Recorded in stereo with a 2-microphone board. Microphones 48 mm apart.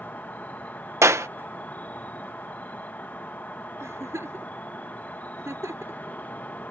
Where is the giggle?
70° right (ahead or behind).